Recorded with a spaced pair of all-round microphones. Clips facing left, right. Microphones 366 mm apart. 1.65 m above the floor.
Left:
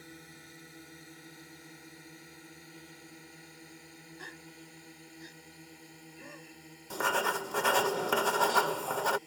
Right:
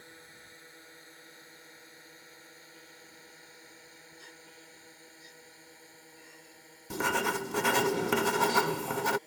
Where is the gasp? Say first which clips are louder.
Left 5 dB; 85° left.